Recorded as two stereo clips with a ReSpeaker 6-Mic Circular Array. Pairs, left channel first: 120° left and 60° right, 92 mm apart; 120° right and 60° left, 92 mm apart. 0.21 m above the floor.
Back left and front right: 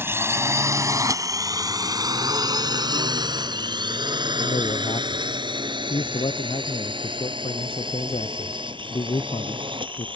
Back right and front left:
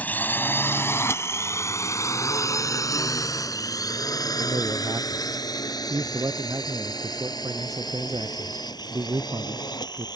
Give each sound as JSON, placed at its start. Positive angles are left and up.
{"t": 0.0, "sound": "a drone", "azimuth_deg": -75}
{"t": 4.4, "sound": "a man speaking", "azimuth_deg": 110}